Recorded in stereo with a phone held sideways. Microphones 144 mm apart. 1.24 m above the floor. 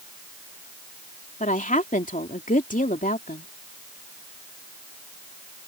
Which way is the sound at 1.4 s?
65° left (ahead or behind).